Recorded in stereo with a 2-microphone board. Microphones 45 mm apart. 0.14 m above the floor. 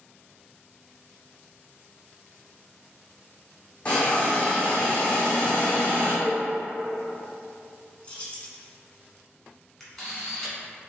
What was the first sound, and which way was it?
A hiss, 25° left (ahead or behind).